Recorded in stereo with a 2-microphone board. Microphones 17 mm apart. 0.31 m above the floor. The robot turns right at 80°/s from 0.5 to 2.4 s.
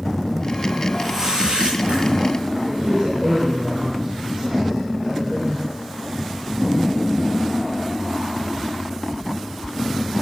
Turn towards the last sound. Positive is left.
turn(degrees=-75)  # may be behind; listen again after turning